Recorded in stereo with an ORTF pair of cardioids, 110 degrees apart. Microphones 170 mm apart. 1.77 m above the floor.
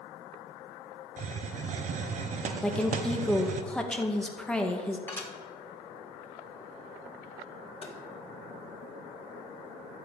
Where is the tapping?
35° left, 3.5 m.